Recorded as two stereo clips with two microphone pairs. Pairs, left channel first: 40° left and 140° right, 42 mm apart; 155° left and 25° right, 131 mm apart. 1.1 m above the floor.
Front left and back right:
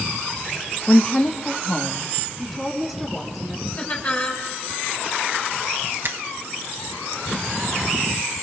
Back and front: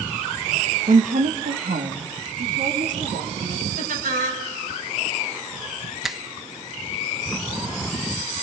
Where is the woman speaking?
15° right, 1.2 m; by 3.7 s 50° right, 5 m.